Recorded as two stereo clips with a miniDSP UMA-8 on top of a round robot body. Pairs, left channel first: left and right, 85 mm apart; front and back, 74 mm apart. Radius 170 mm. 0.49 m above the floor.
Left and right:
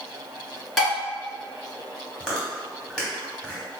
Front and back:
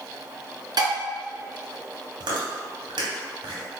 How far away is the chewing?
About 1.2 m.